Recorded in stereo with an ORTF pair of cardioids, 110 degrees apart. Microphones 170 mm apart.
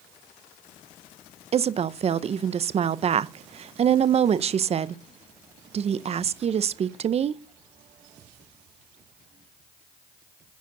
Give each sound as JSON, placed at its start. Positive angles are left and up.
{"t": 1.5, "sound": "a woman speaking", "azimuth_deg": -40, "distance_m": 0.6}